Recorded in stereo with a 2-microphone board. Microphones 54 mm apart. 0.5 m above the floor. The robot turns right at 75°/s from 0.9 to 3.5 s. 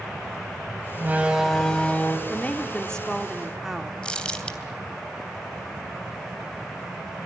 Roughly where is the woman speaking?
Left.